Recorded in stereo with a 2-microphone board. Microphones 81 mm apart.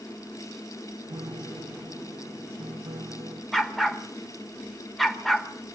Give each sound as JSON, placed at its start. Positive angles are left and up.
{"t": 1.1, "sound": "a piano", "side_deg": -75, "distance_m": 2.0}
{"t": 3.5, "sound": "a dog barking", "side_deg": 0, "distance_m": 1.4}